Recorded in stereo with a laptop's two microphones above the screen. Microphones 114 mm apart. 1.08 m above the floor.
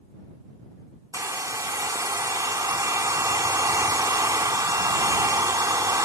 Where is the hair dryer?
30° right (ahead or behind).